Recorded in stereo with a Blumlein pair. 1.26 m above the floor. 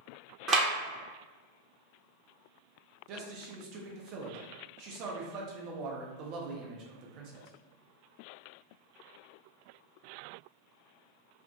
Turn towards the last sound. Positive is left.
turn(degrees=-40)